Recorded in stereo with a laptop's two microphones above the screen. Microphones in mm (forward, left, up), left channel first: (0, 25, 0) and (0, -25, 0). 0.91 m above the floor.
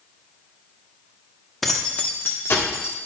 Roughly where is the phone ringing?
I don't hear a phone ringing.